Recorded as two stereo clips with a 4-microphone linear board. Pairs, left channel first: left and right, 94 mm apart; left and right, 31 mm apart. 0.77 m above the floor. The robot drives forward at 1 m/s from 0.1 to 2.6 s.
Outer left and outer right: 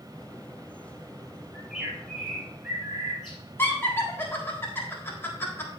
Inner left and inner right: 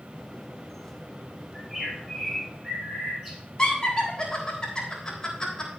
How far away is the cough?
No cough in this recording.